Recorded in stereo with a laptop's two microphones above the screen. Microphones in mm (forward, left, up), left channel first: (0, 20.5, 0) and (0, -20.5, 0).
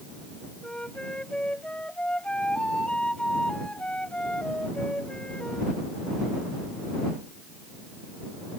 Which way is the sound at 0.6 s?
25° left (ahead or behind).